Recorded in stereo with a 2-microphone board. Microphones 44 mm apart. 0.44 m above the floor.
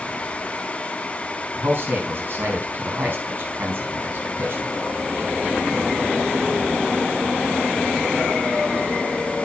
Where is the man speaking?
50° right (ahead or behind), 4.5 m.